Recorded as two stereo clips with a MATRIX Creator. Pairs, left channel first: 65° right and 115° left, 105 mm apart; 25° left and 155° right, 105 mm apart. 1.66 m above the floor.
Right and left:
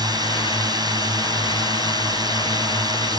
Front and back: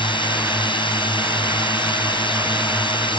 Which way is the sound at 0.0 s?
60° left.